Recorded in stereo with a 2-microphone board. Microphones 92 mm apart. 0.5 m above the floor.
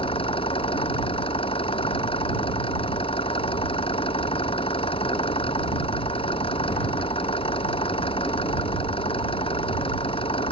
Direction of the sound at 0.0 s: 80° left.